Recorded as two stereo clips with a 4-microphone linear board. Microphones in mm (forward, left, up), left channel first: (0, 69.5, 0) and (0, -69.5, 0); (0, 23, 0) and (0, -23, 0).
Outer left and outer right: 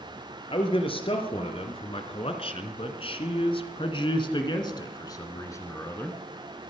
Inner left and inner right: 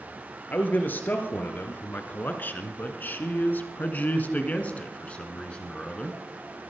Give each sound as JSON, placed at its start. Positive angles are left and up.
{"t": 0.5, "sound": "a man speaking", "side_deg": 40, "distance_m": 2.5}